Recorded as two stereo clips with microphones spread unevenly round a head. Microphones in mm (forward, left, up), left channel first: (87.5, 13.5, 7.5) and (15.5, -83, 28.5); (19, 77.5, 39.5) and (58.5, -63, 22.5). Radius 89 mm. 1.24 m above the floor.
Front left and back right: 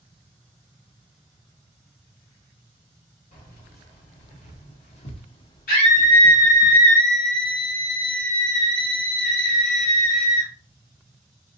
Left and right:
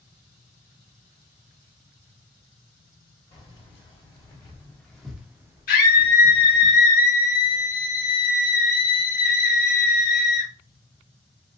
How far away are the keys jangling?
About 1.9 m.